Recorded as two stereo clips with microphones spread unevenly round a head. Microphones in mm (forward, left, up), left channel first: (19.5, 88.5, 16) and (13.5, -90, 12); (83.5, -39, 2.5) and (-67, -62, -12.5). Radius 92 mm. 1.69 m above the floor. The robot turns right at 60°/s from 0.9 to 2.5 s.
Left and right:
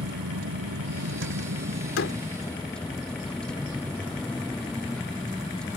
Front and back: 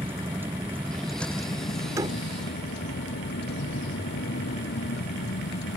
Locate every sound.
0.0 s a vehicle: 95° right; by 5.8 s straight ahead
2.0 s a door slam: 110° left; by 2.2 s 125° left